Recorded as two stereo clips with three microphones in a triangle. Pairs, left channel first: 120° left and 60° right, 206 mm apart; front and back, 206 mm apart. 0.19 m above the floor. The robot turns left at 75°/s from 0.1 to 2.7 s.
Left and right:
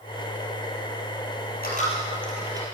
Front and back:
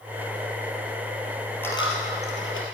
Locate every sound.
1.6 s a dropped coin: 80° left, 2 m; by 2.6 s 5° left, 2 m